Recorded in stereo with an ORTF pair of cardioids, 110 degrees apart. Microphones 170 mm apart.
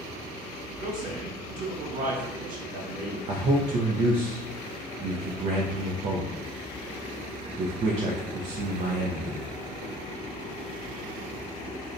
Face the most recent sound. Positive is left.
turn(degrees=-45)